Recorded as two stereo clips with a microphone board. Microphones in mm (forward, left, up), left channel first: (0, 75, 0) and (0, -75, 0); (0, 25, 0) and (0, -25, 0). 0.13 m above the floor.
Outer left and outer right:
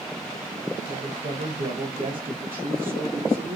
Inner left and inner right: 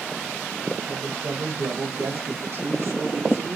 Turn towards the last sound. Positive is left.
turn(degrees=-70)  # may be behind; listen again after turning